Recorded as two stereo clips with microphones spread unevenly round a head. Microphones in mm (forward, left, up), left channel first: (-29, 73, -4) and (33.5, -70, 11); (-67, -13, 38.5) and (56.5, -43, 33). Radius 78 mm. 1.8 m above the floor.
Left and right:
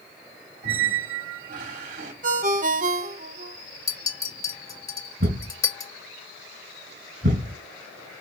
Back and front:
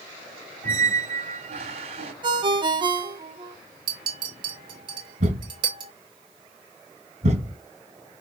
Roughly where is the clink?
Ahead left.